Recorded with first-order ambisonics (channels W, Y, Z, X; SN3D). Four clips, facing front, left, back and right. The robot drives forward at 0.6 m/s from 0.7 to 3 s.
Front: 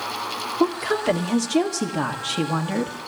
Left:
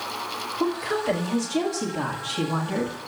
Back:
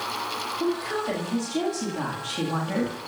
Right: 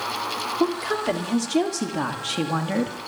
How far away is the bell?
No bell in this recording.